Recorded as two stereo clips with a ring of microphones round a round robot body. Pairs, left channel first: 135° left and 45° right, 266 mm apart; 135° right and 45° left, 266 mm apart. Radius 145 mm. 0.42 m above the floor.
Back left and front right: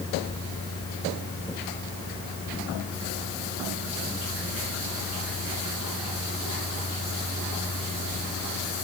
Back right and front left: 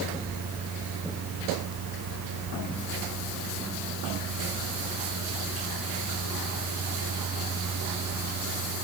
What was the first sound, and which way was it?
Only background noise.